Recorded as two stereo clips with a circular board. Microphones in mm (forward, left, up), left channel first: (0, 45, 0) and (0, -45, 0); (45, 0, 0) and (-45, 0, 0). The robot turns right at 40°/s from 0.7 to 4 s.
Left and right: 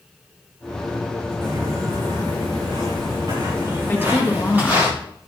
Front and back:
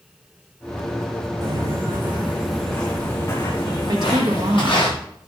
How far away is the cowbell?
I don't hear a cowbell.